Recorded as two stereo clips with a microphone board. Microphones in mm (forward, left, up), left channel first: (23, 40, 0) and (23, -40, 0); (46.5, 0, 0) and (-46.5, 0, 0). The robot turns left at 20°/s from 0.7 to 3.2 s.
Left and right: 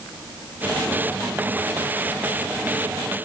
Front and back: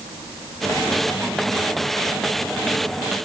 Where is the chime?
No chime in this recording.